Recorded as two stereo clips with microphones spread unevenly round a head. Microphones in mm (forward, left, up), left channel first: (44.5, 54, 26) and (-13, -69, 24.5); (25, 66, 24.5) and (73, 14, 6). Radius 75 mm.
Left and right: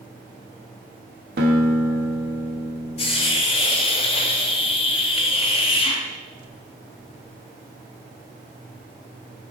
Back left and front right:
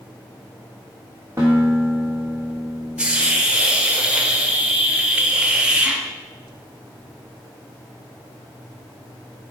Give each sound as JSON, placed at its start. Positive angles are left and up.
{"t": 1.4, "sound": "a guitar", "azimuth_deg": -125, "distance_m": 1.0}
{"t": 3.0, "sound": "a hiss", "azimuth_deg": 20, "distance_m": 0.8}